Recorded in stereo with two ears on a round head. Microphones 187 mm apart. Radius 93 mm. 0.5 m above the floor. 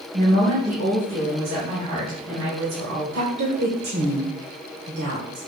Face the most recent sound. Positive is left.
turn(degrees=-55)  # may be behind; listen again after turning